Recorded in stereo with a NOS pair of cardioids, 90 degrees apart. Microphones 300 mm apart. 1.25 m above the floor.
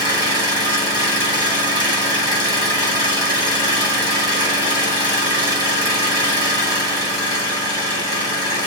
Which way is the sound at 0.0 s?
15° left.